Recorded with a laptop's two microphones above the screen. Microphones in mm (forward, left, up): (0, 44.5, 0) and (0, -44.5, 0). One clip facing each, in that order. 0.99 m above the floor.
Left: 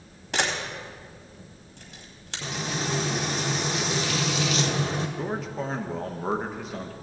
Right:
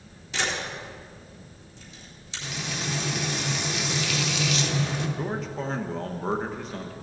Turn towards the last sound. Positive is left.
turn(degrees=5)  # may be behind; listen again after turning